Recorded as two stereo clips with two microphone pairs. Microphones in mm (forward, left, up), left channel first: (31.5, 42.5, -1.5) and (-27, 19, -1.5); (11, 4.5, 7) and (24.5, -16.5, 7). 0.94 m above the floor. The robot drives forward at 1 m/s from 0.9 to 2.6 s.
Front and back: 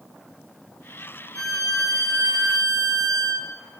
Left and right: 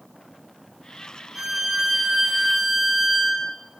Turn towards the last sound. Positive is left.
turn(degrees=-140)